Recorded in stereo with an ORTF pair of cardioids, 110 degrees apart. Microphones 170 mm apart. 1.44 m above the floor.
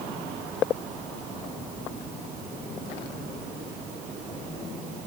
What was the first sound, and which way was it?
Only background noise.